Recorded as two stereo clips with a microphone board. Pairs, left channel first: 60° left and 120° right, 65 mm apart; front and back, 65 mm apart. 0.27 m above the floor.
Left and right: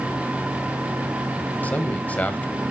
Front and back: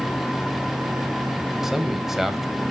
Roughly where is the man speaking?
Left.